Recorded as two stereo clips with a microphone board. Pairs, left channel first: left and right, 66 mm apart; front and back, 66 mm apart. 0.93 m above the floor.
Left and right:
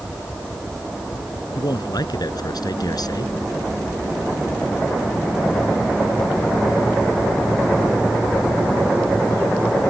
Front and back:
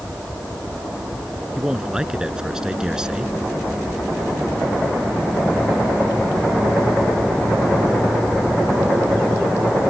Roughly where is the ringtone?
I don't hear a ringtone.